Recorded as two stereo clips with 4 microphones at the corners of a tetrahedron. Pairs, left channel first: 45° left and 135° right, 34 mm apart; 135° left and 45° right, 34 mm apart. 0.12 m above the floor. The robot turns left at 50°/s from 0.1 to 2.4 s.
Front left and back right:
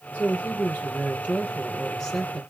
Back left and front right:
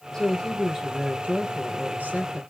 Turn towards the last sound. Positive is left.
turn(degrees=-50)